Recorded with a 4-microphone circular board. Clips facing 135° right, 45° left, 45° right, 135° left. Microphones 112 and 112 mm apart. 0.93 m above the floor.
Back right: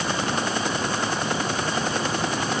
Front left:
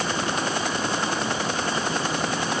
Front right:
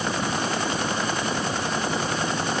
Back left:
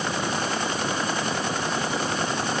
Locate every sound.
Only background noise.